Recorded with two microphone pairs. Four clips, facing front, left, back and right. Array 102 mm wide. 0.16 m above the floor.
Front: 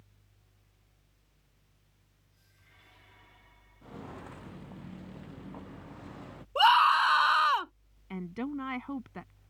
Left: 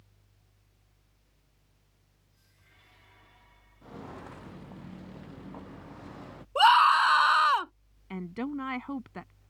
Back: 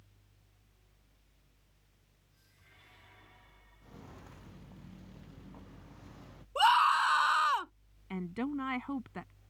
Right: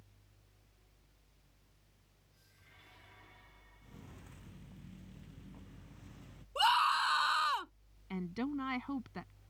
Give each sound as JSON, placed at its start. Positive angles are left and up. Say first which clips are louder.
{"t": 3.8, "sound": "footsteps", "louder": "left 14 dB, front 9 dB", "azimuth_deg": 65}
{"t": 6.5, "sound": "a scream", "louder": "left 10 dB, front 3 dB", "azimuth_deg": 75}
{"t": 8.1, "sound": "a woman speaking", "louder": "left 3 dB, even", "azimuth_deg": 95}